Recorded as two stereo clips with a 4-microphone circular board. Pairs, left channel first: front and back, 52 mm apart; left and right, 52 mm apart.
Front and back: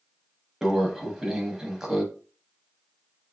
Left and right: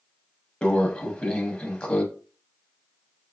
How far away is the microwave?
About 0.8 m.